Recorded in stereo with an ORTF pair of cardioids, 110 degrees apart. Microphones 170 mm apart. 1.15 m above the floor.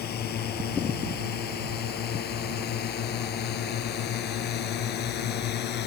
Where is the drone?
65° left; by 5.9 s 70° left.